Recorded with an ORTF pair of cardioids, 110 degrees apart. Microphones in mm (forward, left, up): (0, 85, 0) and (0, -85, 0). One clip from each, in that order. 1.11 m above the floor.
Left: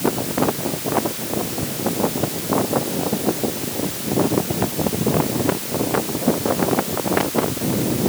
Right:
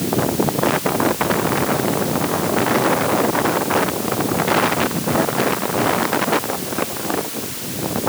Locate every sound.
Only background noise.